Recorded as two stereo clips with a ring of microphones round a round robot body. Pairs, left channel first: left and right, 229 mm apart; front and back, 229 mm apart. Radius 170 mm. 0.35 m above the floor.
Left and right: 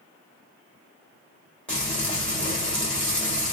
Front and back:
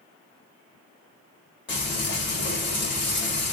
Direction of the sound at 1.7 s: 5° left.